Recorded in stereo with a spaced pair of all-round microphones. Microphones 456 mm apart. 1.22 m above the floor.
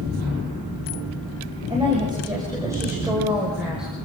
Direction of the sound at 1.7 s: 10° right (ahead or behind).